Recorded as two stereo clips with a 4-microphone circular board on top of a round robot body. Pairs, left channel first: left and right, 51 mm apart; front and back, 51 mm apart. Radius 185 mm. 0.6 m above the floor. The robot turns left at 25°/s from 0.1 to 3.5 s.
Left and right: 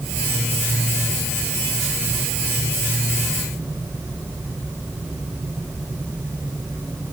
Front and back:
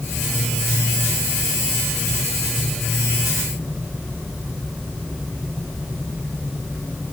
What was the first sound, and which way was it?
Only background noise.